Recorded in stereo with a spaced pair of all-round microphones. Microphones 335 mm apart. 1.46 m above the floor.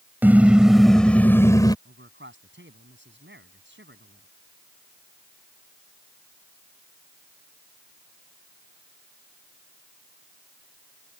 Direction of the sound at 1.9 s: 35° right (ahead or behind).